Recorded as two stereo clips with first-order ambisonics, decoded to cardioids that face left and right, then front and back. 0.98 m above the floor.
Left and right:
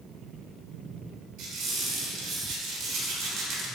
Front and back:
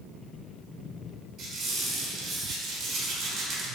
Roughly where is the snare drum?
No snare drum in this recording.